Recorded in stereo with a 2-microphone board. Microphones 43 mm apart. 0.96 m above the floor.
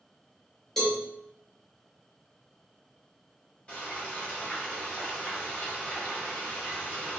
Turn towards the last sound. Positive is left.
turn(degrees=25)  # may be behind; listen again after turning